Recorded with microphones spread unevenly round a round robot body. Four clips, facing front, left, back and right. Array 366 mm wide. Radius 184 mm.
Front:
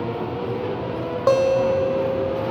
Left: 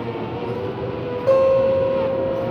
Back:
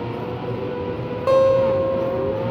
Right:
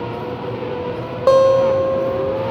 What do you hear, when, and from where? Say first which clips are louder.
1.3 s a guitar: right 3 dB, back 2 dB; 55° right, 0.7 m